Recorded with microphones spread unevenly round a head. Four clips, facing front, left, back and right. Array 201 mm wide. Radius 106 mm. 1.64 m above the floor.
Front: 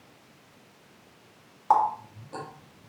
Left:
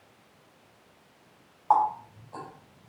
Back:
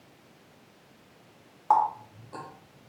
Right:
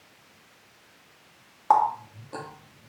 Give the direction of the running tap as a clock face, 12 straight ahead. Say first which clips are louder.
Right 2 dB, front 1 dB; 3 o'clock.